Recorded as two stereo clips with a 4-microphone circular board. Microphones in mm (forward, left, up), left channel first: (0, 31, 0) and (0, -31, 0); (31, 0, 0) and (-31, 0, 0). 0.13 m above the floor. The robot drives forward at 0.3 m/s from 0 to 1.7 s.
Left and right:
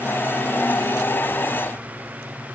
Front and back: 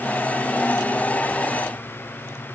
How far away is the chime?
No chime in this recording.